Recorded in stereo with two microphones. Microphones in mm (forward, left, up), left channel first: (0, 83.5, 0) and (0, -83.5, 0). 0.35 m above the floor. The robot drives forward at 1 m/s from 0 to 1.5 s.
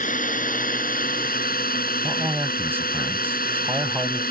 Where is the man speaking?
15° right (ahead or behind).